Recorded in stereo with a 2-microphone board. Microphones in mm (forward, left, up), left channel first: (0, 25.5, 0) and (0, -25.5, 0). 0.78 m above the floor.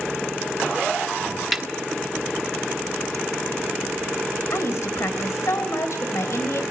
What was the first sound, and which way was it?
A snare drum, 5° right (ahead or behind).